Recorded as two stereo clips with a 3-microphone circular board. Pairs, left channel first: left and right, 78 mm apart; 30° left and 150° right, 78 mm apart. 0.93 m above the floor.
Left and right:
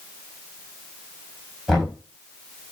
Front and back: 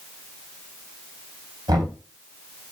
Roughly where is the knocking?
Behind.